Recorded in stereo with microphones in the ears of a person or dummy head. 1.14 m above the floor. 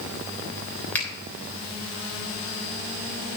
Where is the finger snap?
10° left (ahead or behind), 3 m.